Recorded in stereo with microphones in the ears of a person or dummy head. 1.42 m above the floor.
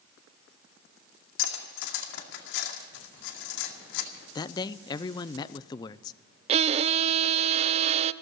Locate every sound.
1.4 s cutlery clinking: 75° left (ahead or behind), 2 m
4.3 s a man speaking: 25° left (ahead or behind), 0.5 m
6.5 s a violin: 35° right (ahead or behind), 0.5 m